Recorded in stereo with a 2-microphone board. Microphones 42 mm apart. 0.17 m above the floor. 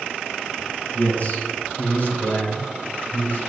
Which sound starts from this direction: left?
A man speaking, at 0.9 s.